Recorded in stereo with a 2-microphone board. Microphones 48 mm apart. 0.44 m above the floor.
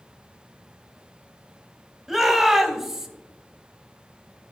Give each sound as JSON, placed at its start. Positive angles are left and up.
{"t": 2.1, "sound": "a shout", "side_deg": -5, "distance_m": 2.0}